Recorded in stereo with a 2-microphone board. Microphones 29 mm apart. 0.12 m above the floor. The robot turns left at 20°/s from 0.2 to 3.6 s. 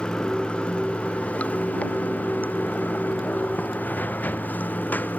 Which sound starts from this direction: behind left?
Running water, at 0.0 s.